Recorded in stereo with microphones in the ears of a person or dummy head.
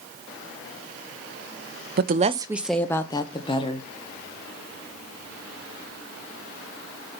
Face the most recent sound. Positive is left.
turn(degrees=35)  # may be behind; listen again after turning